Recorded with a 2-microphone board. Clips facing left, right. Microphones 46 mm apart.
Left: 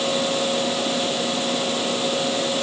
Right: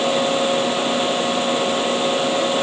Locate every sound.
Only background noise.